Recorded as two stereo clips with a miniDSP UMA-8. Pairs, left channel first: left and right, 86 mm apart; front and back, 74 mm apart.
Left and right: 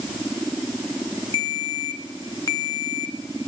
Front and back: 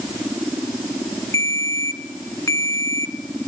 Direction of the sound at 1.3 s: 45° left.